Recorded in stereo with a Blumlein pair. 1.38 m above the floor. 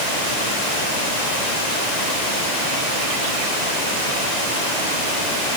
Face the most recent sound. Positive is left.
No sound to turn to.